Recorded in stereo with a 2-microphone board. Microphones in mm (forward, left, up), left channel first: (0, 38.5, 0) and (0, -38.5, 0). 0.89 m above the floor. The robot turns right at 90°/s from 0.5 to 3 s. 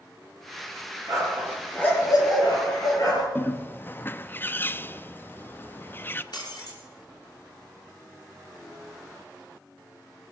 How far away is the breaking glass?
About 6 m.